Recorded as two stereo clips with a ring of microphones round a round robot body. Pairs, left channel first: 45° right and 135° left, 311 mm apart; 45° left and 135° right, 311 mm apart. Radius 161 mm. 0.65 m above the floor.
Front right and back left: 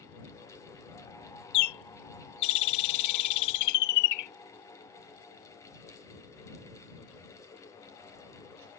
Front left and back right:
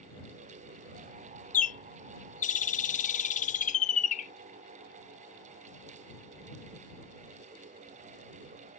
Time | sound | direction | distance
1.5 | a bird | 20° right | ?